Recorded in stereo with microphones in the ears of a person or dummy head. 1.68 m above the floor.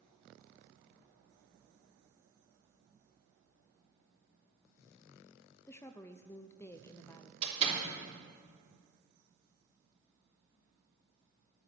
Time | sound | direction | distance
5.7 | a woman speaking | 25° left (ahead or behind) | 0.5 m
7.4 | a door slam | 30° right (ahead or behind) | 3 m